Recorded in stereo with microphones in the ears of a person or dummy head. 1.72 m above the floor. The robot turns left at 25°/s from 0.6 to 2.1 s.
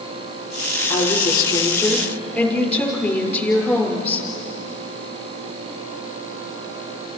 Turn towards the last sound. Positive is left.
turn(degrees=10)